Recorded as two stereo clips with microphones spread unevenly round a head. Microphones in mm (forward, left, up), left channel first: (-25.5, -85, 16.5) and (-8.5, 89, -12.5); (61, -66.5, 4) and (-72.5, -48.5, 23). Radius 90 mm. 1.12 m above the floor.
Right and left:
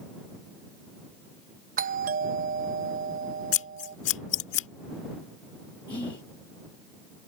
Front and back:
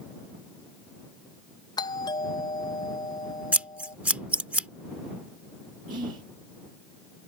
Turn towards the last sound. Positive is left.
turn(degrees=-160)